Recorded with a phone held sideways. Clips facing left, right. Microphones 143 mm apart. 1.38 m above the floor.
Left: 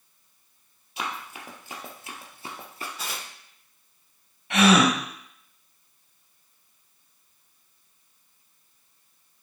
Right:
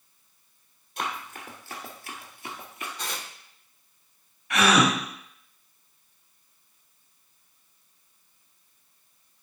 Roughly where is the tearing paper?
Centre.